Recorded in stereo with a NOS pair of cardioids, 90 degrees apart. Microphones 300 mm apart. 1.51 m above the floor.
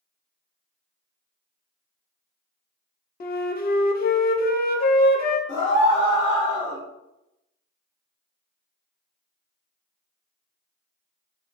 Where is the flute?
35° left, 0.6 m.